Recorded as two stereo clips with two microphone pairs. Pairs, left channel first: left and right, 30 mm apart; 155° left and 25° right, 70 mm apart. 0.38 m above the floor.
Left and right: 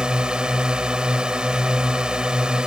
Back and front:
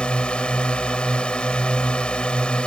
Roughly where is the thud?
I don't hear a thud.